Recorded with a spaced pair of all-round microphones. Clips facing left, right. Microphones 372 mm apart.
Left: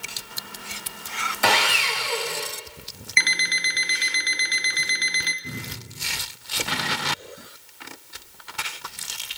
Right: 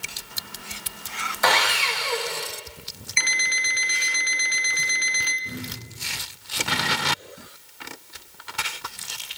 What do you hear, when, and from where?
1.4 s sawing: 40° left (ahead or behind), 0.9 m
3.2 s an alarm clock: 30° left (ahead or behind), 0.6 m
5.4 s a cupboard door: 55° left (ahead or behind), 4 m